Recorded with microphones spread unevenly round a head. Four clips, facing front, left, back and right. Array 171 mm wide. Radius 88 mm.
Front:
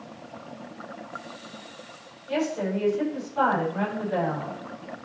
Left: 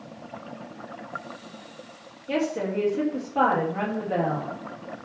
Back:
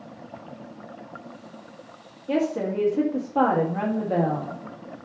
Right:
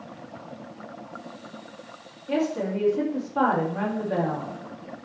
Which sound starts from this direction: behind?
A woman speaking, at 2.3 s.